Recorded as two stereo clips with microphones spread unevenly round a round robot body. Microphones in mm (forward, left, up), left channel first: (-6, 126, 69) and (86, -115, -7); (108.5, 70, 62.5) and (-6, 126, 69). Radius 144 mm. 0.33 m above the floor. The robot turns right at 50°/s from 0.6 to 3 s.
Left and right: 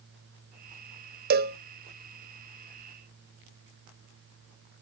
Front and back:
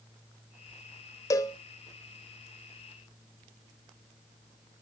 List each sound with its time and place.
1.3 s a cowbell: 85° right, 0.6 m; by 1.6 s 70° right, 0.6 m